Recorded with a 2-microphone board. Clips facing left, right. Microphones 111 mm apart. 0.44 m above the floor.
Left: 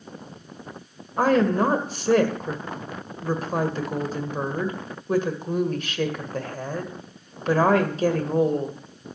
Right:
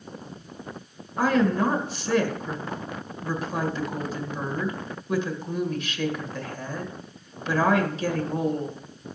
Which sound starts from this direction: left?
A woman speaking, at 1.2 s.